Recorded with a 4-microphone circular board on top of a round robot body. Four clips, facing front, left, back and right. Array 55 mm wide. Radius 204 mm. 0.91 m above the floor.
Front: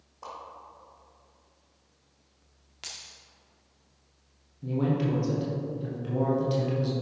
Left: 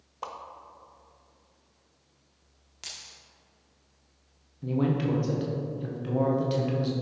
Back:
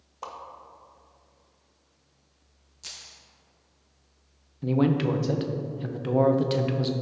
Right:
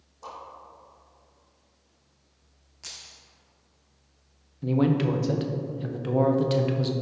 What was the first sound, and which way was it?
A whoosh, 115° left.